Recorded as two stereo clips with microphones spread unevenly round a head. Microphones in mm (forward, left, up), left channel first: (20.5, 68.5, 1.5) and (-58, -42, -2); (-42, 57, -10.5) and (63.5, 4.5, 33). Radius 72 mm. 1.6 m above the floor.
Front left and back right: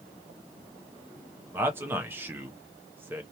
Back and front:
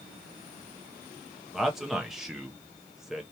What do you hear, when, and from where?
1.5 s a man speaking: 65° right, 0.5 m